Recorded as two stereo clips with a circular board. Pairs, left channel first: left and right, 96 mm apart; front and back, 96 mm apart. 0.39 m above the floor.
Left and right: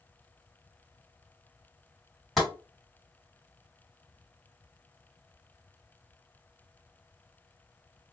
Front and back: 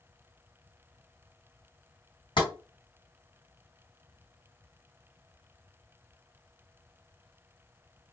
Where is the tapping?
5° left, 2 m.